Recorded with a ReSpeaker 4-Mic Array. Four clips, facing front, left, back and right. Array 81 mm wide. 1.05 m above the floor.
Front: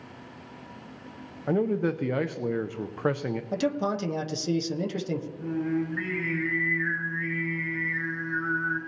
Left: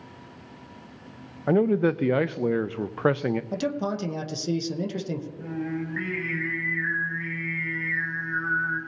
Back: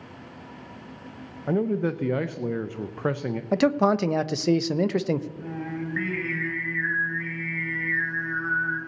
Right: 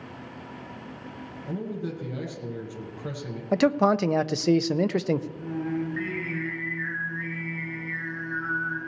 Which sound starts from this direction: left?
A man speaking, at 1.5 s.